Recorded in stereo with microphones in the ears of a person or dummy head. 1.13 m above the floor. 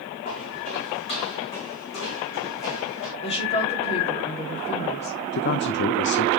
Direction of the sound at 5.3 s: 55° left (ahead or behind).